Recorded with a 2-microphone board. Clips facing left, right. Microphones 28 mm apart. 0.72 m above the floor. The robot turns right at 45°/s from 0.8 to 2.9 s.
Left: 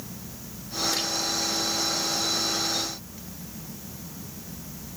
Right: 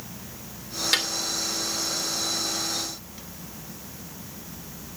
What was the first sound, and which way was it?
A snare drum, 70° right (ahead or behind).